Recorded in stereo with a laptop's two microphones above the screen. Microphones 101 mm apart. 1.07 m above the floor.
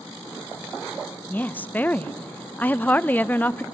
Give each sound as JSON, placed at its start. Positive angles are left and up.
{"t": 1.3, "sound": "a woman speaking", "side_deg": 15, "distance_m": 0.6}